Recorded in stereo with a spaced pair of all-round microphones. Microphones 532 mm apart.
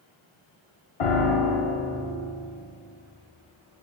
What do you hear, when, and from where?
1.0 s a piano: 70° left (ahead or behind), 0.7 m